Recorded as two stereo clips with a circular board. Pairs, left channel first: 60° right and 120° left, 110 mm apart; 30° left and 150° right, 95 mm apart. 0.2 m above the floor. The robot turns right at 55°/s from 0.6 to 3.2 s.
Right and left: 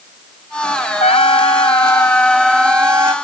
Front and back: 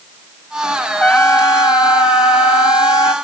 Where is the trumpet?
50° right; by 3.1 s 70° left.